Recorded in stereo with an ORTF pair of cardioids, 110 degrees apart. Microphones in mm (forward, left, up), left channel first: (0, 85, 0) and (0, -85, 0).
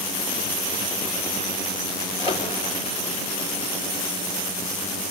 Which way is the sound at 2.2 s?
35° left.